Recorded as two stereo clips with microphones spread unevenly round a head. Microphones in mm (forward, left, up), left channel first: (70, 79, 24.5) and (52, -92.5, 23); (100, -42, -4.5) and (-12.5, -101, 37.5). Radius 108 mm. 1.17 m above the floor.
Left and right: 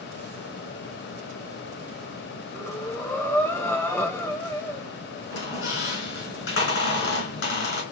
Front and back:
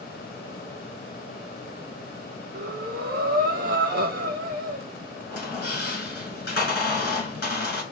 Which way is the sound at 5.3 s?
80° left.